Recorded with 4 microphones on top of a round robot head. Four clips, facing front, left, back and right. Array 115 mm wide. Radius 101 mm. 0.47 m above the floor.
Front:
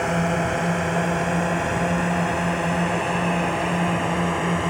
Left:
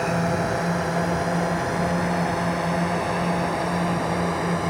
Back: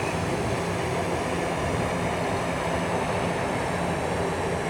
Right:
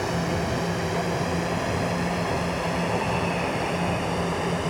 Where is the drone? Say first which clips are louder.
Left 3 dB, front 5 dB; 40° left; by 4.7 s 35° left.